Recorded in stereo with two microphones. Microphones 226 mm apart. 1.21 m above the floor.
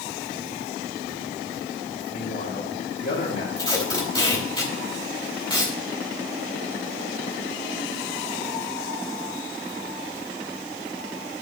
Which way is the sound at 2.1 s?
55° left (ahead or behind).